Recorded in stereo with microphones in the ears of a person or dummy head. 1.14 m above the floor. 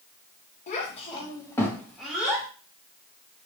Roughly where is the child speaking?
Left.